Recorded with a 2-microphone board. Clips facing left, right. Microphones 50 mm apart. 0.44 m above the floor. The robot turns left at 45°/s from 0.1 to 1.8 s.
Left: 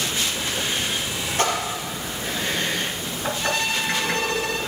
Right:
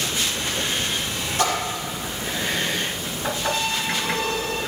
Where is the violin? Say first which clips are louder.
Left 1 dB; 75° left (ahead or behind), 1.2 m.